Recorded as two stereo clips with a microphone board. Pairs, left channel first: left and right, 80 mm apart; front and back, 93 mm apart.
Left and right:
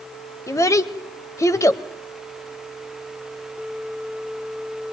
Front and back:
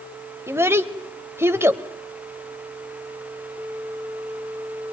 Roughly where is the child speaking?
Behind left.